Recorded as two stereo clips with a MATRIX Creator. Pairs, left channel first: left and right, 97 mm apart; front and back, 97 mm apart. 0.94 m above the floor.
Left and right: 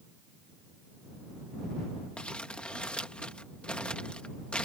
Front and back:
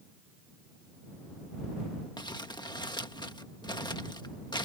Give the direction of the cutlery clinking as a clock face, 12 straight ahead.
No cutlery clinking in this recording.